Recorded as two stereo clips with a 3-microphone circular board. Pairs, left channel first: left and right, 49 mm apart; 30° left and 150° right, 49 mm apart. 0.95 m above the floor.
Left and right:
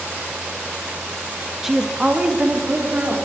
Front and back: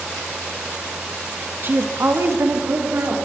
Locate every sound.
1.6 s a woman speaking: 175° right, 1.3 m; by 3.1 s 140° right, 3.5 m